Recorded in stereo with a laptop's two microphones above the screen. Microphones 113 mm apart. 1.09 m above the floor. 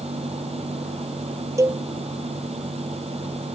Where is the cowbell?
25° right (ahead or behind).